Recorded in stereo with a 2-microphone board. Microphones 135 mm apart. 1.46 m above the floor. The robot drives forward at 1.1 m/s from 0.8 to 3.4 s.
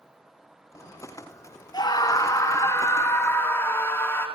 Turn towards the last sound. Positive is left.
turn(degrees=15)  # may be behind; listen again after turning